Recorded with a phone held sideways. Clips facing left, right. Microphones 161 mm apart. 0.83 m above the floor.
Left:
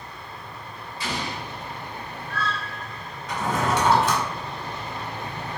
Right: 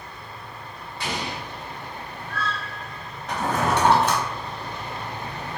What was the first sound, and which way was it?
An explosion, 65° right (ahead or behind).